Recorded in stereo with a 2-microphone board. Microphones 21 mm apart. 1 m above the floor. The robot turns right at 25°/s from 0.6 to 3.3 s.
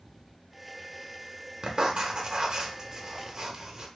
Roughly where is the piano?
I don't hear a piano.